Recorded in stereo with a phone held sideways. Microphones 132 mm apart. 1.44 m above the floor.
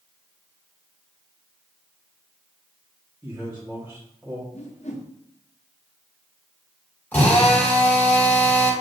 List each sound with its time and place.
3.2 s a man speaking: 15° right (ahead or behind), 1.3 m
4.5 s a whoosh: 60° left (ahead or behind), 0.9 m
7.1 s a drill: 15° left (ahead or behind), 2.0 m